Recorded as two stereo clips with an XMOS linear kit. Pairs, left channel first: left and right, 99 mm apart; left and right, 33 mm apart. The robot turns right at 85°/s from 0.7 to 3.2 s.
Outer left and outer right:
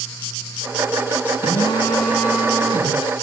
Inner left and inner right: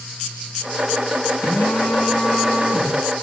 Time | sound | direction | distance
1.4 | a phone buzzing | 110° left | 5.5 m